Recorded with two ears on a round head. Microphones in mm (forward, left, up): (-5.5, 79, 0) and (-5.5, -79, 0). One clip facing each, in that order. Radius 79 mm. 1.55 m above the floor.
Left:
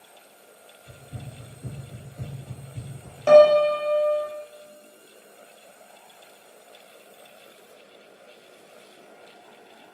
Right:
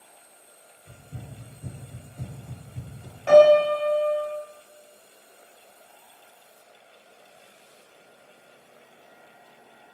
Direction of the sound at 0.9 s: 25° left (ahead or behind).